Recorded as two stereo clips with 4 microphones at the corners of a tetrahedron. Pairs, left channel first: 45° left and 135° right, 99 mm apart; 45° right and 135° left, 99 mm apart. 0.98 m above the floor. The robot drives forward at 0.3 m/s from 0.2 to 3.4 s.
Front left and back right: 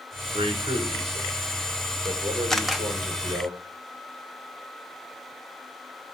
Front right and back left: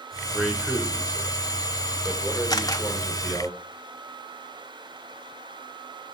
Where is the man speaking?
140° right, 3.5 m; by 3.5 s 150° right, 4 m.